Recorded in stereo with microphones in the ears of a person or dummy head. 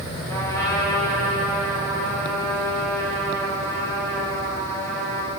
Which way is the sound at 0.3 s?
15° left (ahead or behind).